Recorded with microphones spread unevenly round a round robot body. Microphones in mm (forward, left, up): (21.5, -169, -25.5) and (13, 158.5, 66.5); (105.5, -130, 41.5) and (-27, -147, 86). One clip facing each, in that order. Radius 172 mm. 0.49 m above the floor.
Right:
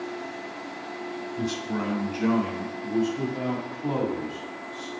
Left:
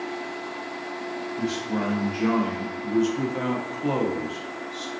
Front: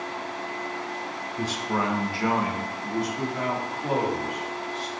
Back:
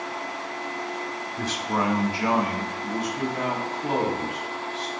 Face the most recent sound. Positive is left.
turn(degrees=110)